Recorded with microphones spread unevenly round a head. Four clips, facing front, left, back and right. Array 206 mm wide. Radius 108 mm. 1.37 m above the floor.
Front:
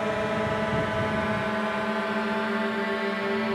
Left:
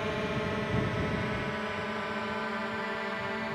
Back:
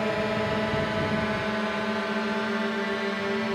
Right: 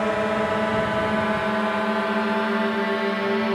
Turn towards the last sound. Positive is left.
turn(degrees=-85)